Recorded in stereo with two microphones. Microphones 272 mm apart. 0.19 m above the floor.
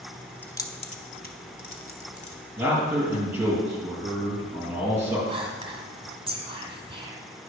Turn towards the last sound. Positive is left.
turn(degrees=-20)  # may be behind; listen again after turning